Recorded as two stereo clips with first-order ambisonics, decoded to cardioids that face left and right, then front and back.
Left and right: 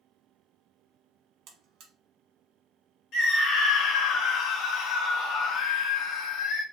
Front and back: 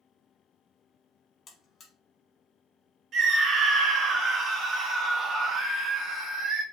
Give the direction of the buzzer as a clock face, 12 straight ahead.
2 o'clock.